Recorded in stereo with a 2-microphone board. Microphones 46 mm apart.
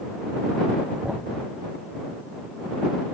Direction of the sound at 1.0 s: 20° right (ahead or behind).